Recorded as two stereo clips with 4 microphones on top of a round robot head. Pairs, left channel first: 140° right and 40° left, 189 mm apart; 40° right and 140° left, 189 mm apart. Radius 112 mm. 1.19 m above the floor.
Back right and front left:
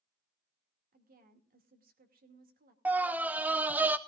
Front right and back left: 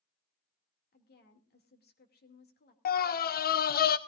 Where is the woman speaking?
5° right, 2.5 m.